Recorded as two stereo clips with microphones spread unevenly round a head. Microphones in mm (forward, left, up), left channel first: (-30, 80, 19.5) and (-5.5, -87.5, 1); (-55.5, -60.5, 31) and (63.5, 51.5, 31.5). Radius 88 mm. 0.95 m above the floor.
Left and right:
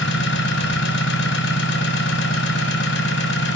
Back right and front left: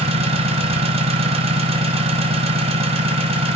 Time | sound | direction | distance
0.0 | an engine running | 100° left | 1.5 m